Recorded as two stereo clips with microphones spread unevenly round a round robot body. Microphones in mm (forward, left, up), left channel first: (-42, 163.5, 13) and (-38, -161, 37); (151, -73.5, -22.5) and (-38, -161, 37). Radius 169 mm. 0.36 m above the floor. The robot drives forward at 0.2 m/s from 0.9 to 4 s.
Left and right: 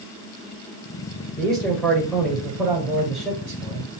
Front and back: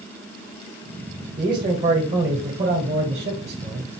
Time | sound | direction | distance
1.4 | a man speaking | 170° left | 1.6 m